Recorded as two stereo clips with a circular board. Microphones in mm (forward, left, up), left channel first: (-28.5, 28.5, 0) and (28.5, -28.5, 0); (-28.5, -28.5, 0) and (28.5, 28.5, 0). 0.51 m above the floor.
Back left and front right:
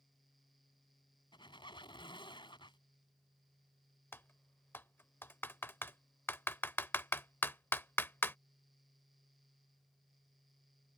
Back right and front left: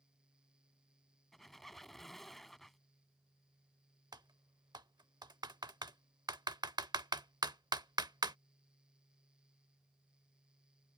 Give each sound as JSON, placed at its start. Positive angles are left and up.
{"t": 1.3, "sound": "a squeak", "azimuth_deg": 135}
{"t": 4.1, "sound": "typing on a keyboard", "azimuth_deg": 75}